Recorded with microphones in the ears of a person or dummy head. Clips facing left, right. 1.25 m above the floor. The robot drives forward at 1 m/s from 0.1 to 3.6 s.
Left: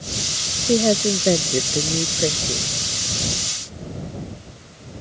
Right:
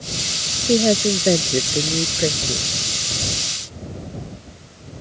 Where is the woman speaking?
5° right (ahead or behind).